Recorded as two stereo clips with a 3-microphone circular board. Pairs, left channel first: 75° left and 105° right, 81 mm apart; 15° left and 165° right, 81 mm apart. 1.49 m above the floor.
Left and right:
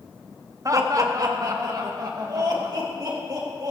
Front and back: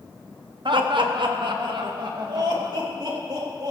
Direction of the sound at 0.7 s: 155° right.